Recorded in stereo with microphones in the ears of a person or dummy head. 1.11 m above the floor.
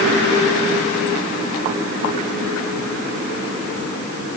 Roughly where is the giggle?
I don't hear a giggle.